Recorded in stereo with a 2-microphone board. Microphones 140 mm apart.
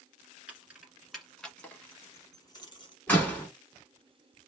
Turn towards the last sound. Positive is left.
turn(degrees=10)  # may be behind; listen again after turning